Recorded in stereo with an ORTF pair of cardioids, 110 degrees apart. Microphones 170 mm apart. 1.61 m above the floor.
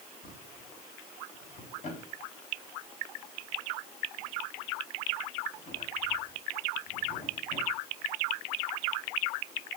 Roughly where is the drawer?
Ahead left.